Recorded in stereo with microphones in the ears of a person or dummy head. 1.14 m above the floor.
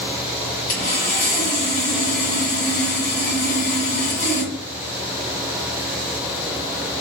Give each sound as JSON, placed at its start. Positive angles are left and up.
{"t": 0.7, "sound": "sawing", "side_deg": 40, "distance_m": 1.8}